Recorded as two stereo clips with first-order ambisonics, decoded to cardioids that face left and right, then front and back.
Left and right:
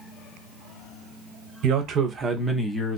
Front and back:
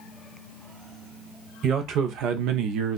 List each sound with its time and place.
1.6 s a man speaking: 130° right, 0.8 m; by 3.0 s 150° left, 0.8 m